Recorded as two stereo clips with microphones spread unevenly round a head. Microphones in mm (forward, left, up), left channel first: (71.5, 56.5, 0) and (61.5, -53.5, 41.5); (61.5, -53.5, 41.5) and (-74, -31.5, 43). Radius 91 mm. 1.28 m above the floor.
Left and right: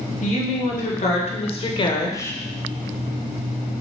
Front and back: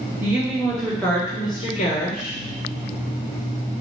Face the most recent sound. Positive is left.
turn(degrees=10)